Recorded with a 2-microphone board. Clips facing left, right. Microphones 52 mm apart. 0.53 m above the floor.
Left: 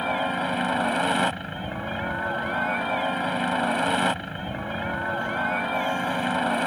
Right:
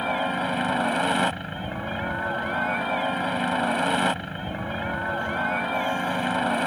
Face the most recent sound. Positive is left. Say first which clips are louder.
# even
turn(degrees=0)  # may be behind; listen again after turning